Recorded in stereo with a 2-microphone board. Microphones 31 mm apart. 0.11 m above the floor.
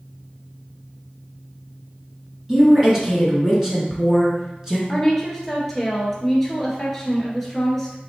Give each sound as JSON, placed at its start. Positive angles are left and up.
{"t": 2.5, "sound": "a woman speaking", "side_deg": -15, "distance_m": 1.2}
{"t": 4.9, "sound": "a woman speaking", "side_deg": 5, "distance_m": 1.4}